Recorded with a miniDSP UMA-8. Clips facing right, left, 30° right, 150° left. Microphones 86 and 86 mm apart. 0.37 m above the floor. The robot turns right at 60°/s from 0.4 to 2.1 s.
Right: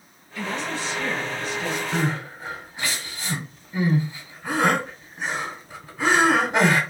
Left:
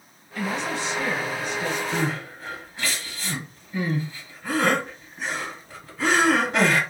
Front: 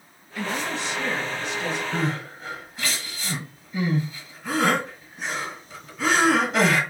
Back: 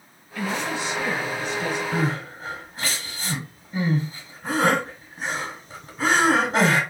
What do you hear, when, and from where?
0.3 s a woman speaking: 50° left, 1.2 m; by 1.8 s 135° left, 1.2 m
1.9 s crying: 170° right, 1.2 m; by 6.8 s 160° right, 1.2 m